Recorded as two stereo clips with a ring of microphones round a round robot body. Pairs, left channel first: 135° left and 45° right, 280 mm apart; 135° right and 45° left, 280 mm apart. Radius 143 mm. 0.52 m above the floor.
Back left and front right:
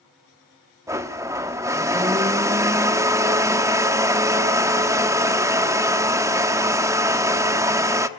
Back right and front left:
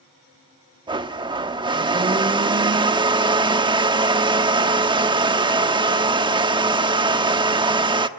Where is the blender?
10° left, 1.1 m.